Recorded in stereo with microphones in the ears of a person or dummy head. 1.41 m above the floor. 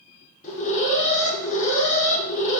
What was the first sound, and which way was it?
An alarm, 40° left (ahead or behind).